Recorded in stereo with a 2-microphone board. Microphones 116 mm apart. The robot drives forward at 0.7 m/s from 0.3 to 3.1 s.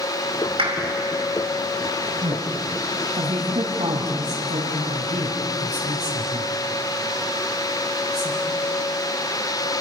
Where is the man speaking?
75° right (ahead or behind), 4.5 m; by 8.3 s 80° right, 4.5 m.